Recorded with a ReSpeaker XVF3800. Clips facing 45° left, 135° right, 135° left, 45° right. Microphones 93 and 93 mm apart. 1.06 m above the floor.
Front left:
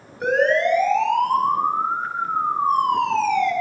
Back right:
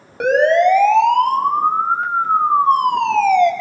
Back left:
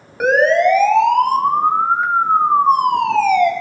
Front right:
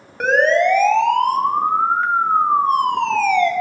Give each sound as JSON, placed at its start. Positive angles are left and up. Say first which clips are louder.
{"t": 0.2, "sound": "a siren", "louder": "back right 6 dB, back left 2 dB", "azimuth_deg": -140, "distance_m": 5.0}